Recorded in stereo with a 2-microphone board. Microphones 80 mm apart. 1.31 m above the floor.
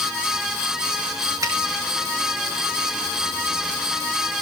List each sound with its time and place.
1.4 s a finger snap: 50° right (ahead or behind), 5.5 m